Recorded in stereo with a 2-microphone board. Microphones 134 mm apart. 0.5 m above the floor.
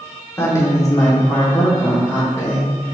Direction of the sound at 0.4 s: 20° left (ahead or behind).